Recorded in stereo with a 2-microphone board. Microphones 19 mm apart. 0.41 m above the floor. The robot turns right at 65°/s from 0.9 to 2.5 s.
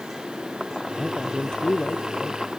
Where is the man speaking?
20° left; by 2.6 s 120° left.